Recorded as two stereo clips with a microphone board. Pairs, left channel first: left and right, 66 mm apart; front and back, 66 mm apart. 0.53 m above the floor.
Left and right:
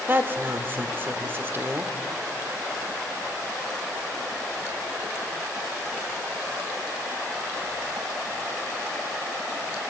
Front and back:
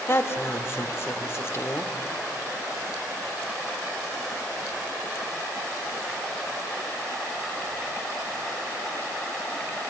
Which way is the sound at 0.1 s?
40° right.